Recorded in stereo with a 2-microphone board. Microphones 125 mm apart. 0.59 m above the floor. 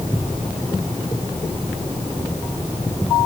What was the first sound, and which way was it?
Only background noise.